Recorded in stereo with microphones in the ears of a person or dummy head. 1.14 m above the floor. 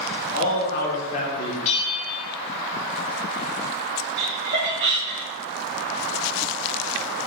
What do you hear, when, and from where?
0.3 s a man speaking: 55° left (ahead or behind), 0.8 m; by 1.6 s 30° left (ahead or behind), 1.3 m
1.6 s a bell: 40° left (ahead or behind), 0.8 m
4.2 s laughter: 50° right (ahead or behind), 0.8 m